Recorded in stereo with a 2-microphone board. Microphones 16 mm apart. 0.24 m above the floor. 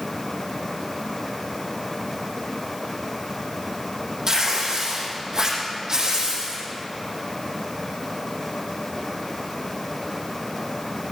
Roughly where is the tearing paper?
Right.